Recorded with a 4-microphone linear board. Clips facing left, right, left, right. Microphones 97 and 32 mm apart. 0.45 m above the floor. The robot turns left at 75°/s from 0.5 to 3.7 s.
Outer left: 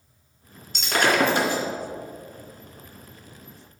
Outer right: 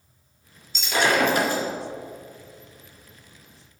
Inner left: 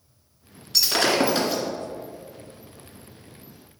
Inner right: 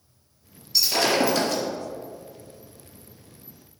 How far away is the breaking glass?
About 2.5 m.